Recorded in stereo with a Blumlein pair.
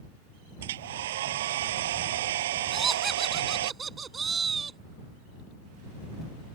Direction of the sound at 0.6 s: 55° right.